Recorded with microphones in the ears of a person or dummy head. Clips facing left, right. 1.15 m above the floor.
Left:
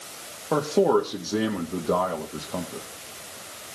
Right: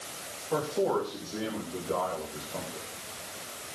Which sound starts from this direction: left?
A man speaking, at 0.5 s.